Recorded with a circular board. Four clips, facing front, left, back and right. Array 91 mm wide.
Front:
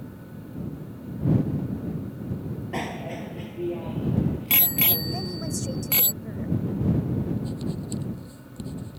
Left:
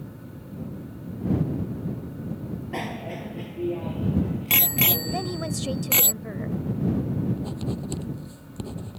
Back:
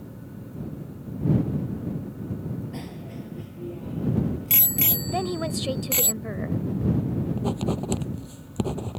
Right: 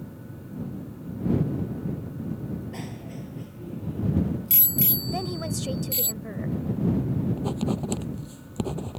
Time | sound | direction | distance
2.7 | a bicycle bell | 40° left | ?
5.1 | a woman speaking | 170° left | ?
7.4 | writing | 150° right | ?